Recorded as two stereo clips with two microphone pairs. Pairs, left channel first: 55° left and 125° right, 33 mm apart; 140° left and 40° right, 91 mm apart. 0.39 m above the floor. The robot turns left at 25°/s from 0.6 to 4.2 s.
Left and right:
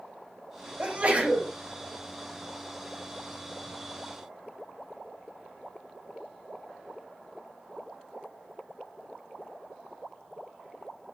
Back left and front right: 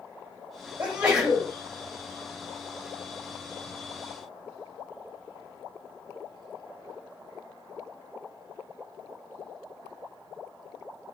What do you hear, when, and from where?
0.8 s a sneeze: 110° right, 1.9 m; by 1.5 s 130° right, 1.9 m